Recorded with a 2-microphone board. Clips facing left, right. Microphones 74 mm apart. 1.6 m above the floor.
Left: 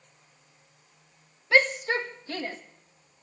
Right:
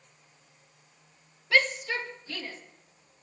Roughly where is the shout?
Left.